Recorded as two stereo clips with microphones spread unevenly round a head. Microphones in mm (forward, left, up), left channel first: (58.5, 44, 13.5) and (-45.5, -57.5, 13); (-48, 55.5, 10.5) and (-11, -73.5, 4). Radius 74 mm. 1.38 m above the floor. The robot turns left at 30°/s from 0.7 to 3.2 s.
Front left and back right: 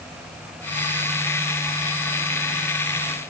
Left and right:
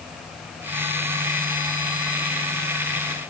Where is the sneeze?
I don't hear a sneeze.